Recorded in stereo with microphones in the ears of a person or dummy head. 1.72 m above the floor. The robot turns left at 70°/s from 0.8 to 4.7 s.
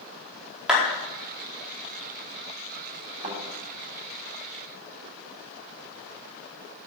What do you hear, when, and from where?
0.7 s a clap: 5° right (ahead or behind), 4.5 m
3.2 s a thud: 40° right (ahead or behind), 3.5 m; by 3.4 s 50° right (ahead or behind), 3.5 m